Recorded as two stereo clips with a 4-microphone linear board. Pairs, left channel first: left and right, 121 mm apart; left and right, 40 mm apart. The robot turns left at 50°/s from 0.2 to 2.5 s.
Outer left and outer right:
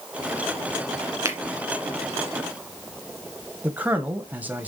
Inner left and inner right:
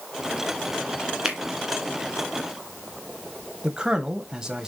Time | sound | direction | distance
1.2 | a finger snap | 25° right (ahead or behind) | 2 m
3.6 | a man speaking | 15° right (ahead or behind) | 1.2 m